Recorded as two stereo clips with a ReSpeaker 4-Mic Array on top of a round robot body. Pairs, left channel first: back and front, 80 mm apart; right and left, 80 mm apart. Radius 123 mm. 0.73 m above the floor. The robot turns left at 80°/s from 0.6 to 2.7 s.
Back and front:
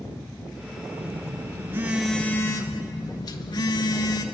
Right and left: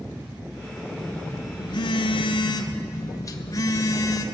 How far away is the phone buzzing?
About 0.7 m.